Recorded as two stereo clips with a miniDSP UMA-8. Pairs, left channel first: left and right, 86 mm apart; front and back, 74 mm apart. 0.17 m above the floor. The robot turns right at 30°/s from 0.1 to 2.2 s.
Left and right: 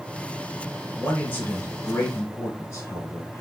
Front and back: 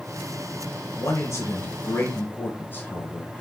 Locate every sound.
1.0 s a man speaking: 5° left, 1.3 m; by 3.4 s 40° left, 1.3 m